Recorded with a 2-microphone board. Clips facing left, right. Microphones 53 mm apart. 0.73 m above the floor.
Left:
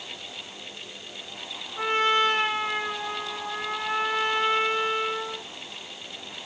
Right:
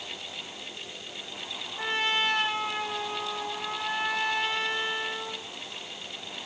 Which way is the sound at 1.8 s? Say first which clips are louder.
Left 6 dB; 70° left (ahead or behind).